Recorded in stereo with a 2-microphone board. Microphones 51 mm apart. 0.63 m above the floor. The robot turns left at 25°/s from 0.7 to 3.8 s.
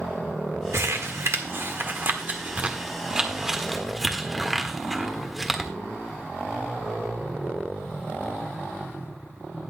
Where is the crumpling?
65° right (ahead or behind), 1.5 m; by 5.7 s 5° right (ahead or behind), 1.5 m.